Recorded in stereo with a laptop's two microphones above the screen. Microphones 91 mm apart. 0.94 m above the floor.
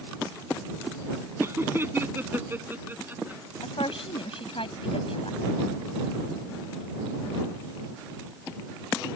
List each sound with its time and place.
1.4 s laughter: 30° right (ahead or behind); by 3.4 s 20° right (ahead or behind)
3.6 s a woman speaking: 85° left